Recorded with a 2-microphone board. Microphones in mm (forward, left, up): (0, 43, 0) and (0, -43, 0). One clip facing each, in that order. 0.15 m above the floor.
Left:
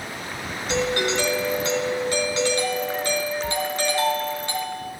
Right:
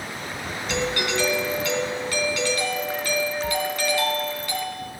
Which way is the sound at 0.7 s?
25° left (ahead or behind).